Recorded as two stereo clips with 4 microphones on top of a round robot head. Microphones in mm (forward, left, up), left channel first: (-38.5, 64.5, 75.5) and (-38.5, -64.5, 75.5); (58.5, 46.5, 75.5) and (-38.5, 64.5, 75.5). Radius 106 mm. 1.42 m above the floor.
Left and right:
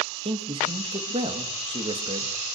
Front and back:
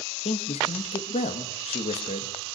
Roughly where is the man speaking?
Ahead right.